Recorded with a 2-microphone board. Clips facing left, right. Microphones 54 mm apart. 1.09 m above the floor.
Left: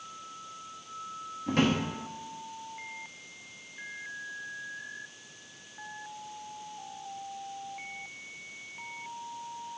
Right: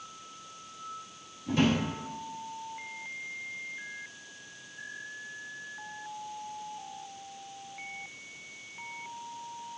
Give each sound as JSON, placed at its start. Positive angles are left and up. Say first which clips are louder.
{"t": 1.5, "sound": "a drawer", "louder": "even", "side_deg": 55, "distance_m": 0.8}